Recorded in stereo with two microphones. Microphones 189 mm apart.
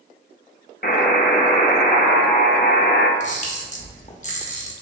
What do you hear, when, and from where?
0.8 s a buzzer: 55° left (ahead or behind), 0.5 m
3.2 s a camera shutter: 45° left (ahead or behind), 0.6 m